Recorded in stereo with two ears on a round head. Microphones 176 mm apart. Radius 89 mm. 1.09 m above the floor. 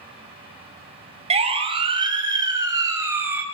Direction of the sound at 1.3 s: 30° right (ahead or behind).